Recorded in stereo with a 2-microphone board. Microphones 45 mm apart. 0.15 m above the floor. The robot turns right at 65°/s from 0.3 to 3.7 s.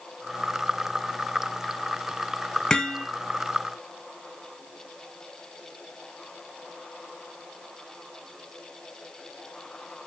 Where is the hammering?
15° left (ahead or behind), 1.0 m; by 3.1 s 20° left (ahead or behind), 1.0 m.